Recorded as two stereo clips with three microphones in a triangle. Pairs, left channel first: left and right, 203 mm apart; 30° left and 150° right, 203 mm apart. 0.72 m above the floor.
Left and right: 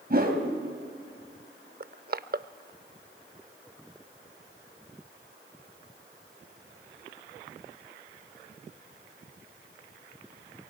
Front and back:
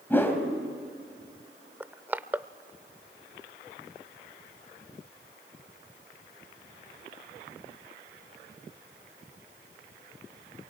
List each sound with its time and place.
0.1 s a whoosh: 50° right, 3 m
1.8 s crushing: 70° right, 0.5 m